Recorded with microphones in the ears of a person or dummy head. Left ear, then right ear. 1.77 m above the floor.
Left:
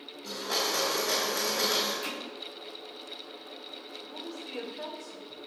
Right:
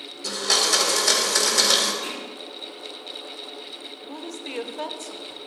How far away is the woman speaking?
About 1.0 m.